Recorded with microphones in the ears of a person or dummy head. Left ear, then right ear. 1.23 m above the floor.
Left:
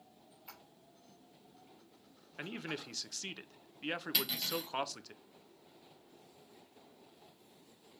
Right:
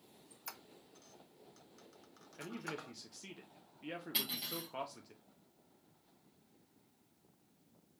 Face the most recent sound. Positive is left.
turn(degrees=30)  # may be behind; listen again after turning